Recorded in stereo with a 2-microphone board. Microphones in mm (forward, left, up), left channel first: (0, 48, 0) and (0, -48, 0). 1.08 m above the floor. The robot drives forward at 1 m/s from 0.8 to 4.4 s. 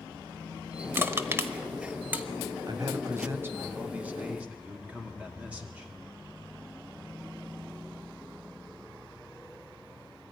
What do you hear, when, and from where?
0.9 s crushing: 25° right (ahead or behind), 0.9 m; by 2.2 s 15° right (ahead or behind), 1.3 m
2.7 s a man speaking: 50° right (ahead or behind), 0.7 m; by 5.9 s 15° right (ahead or behind), 2 m